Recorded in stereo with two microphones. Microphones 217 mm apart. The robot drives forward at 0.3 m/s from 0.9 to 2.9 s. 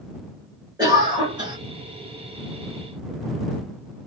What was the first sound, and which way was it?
A cough, 20° right (ahead or behind).